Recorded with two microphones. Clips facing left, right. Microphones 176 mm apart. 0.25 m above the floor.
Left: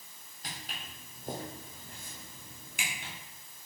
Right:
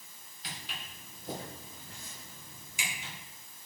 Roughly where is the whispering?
No whispering in this recording.